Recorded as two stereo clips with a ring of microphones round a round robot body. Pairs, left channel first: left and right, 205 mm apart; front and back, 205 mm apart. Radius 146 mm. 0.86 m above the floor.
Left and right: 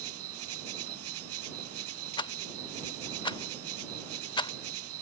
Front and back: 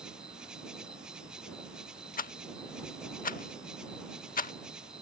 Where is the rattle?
30° left.